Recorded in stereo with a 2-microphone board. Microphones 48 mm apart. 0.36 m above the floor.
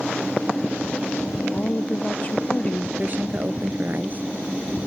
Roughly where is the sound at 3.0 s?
Right.